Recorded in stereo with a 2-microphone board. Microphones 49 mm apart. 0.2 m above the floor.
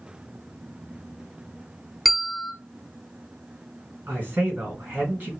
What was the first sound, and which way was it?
A bell, centre (ahead or behind).